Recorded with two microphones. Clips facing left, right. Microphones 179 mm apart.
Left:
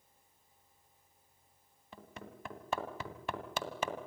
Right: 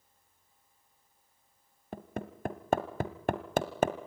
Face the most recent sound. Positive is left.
turn(degrees=-50)  # may be behind; listen again after turning